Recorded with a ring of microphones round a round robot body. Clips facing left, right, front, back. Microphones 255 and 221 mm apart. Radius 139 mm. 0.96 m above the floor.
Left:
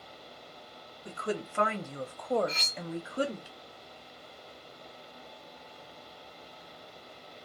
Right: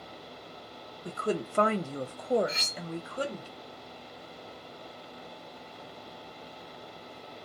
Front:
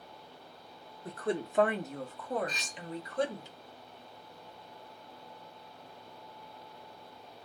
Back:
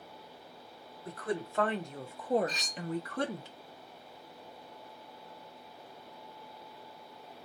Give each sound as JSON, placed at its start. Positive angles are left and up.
{"t": 1.1, "sound": "a woman speaking", "azimuth_deg": -50, "distance_m": 0.9}
{"t": 2.5, "sound": "cutlery clinking", "azimuth_deg": -10, "distance_m": 0.7}